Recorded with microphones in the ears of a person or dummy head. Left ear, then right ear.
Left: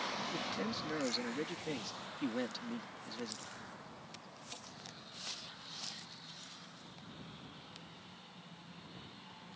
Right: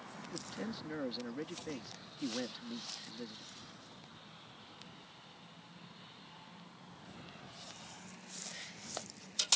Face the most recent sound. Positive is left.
turn(degrees=15)  # may be behind; listen again after turning